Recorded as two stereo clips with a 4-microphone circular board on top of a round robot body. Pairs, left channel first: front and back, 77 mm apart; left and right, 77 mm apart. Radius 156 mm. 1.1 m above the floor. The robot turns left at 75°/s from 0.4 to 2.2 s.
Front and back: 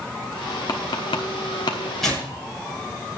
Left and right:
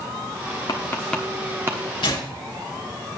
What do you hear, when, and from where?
0.7 s tapping: 45° left, 0.9 m; by 1.9 s 50° right, 0.9 m
2.0 s tearing paper: 85° left, 6.5 m; by 2.2 s 70° left, 6.5 m